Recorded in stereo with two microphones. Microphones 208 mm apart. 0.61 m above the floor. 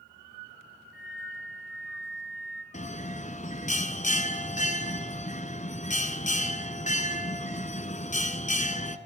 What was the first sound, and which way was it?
A flute, 70° right (ahead or behind).